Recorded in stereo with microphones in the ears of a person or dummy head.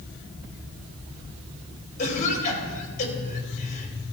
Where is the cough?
45° left (ahead or behind), 3 m.